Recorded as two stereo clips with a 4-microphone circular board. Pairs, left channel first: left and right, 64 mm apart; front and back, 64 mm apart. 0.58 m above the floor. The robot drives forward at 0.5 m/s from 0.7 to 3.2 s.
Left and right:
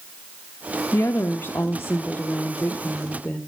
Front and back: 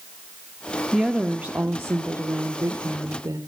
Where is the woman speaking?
95° left, 0.8 m; by 3.4 s 155° left, 1.4 m.